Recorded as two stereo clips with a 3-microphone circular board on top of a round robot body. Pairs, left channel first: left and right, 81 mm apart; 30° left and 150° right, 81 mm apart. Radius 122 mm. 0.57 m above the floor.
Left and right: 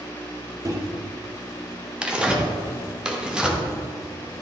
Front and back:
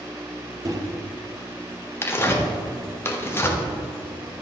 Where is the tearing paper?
15° right, 1.3 m.